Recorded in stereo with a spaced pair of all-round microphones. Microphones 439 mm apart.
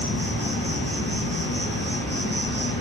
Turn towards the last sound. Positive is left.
turn(degrees=25)  # may be behind; listen again after turning